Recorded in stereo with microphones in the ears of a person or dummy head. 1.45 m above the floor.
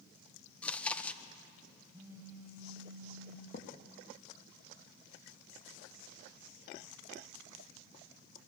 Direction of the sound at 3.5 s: 45° left (ahead or behind).